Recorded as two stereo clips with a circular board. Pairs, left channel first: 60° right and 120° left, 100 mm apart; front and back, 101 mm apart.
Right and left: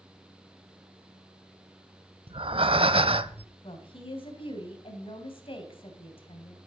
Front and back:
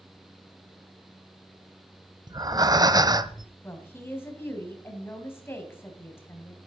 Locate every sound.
2.3 s breathing: 135° left, 0.6 m
3.6 s a woman speaking: 65° right, 3 m